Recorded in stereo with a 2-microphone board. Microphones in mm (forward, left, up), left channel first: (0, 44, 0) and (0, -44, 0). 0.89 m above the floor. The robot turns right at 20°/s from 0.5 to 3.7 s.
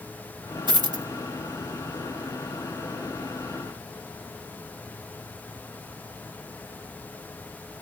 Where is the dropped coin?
60° right (ahead or behind), 1.1 m; by 1.0 s 50° right (ahead or behind), 1.1 m.